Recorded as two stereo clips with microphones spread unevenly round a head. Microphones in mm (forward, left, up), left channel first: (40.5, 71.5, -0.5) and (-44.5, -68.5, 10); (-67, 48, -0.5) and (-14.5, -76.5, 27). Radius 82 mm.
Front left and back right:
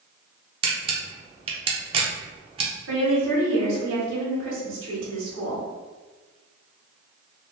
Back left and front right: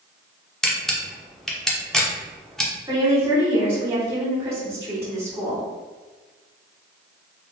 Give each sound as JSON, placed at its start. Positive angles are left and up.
{"t": 0.6, "sound": "a camera shutter", "azimuth_deg": -145, "distance_m": 0.6}
{"t": 2.9, "sound": "a woman speaking", "azimuth_deg": -140, "distance_m": 1.6}